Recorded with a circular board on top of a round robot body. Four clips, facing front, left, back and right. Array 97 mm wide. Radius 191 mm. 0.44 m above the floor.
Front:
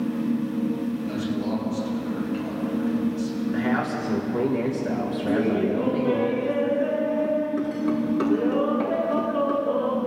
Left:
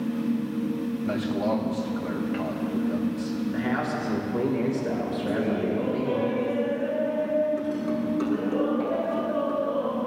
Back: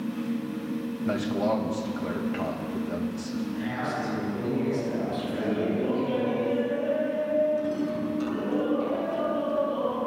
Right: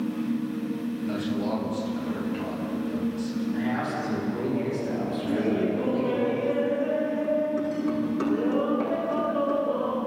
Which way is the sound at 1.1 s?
140° left.